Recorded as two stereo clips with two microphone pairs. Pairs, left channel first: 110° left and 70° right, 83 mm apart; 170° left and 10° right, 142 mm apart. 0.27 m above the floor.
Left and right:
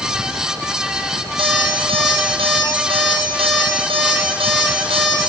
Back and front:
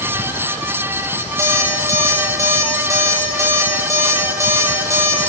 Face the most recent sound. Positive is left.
turn(degrees=-80)